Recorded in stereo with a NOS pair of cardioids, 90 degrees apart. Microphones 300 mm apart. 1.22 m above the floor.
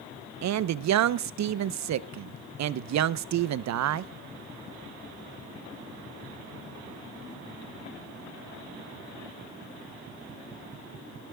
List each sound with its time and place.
0.4 s a man speaking: 65° right, 0.9 m